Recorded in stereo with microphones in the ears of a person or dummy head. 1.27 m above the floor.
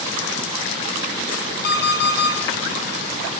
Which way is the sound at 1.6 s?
55° left (ahead or behind).